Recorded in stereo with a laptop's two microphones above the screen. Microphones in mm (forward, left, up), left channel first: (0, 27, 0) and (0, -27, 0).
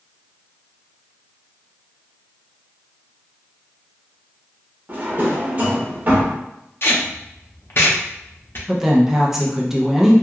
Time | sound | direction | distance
4.9 | a drawer | 35° right (ahead or behind) | 1.2 m
6.8 | tape being pulled | 50° left (ahead or behind) | 0.7 m
8.7 | a woman speaking | 10° right (ahead or behind) | 0.6 m